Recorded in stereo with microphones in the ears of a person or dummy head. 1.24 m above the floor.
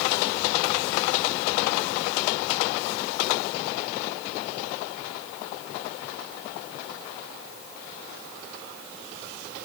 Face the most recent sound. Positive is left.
No sound to turn to.